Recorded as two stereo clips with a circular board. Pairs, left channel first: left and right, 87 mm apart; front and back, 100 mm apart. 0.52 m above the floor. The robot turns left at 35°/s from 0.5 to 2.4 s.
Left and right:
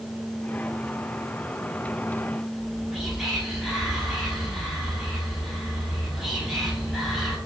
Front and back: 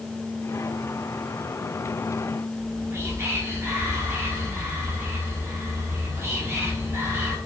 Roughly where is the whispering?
Behind.